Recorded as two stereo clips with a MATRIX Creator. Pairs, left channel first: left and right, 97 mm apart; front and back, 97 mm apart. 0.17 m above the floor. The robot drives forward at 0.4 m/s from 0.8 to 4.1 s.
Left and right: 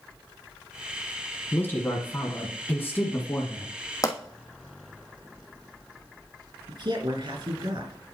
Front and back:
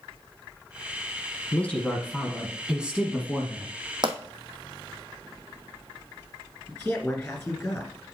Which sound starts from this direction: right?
A man speaking, at 6.7 s.